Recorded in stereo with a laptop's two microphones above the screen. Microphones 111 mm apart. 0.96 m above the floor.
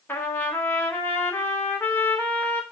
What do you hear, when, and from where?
0.1 s a trumpet: 20° left (ahead or behind), 0.6 m